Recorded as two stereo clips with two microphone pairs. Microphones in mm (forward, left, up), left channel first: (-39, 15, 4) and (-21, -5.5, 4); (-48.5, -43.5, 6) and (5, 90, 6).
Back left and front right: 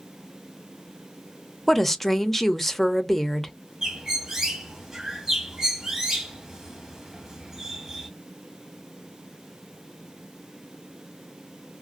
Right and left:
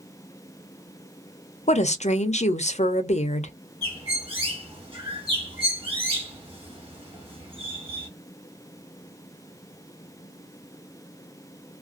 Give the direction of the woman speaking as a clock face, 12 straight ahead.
5 o'clock.